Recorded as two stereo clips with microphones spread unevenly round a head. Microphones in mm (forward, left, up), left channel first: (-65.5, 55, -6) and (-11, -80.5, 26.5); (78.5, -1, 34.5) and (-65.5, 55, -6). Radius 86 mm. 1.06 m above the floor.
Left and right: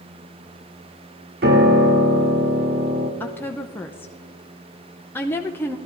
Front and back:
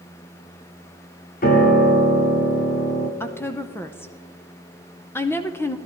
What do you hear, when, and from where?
1.4 s a piano: 55° right, 1.3 m
3.2 s a woman speaking: 65° left, 0.6 m